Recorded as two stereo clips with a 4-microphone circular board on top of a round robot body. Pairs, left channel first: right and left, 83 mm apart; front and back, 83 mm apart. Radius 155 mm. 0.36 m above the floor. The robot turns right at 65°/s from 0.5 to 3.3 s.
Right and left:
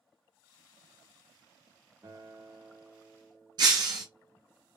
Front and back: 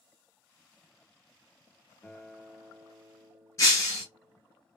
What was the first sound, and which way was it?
A guitar, 60° left.